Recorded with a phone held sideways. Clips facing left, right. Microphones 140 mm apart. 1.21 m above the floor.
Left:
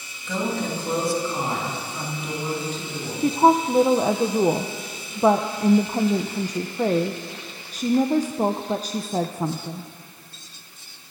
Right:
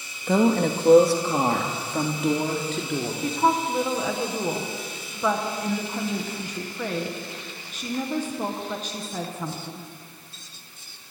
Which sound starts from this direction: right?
A woman speaking, at 0.3 s.